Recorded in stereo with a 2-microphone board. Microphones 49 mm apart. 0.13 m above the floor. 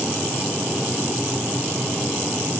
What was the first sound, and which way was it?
Only background noise.